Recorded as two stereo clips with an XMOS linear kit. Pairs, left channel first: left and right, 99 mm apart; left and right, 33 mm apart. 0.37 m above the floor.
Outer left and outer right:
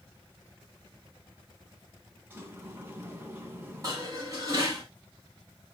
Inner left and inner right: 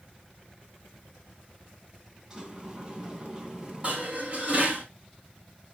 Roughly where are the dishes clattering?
Right.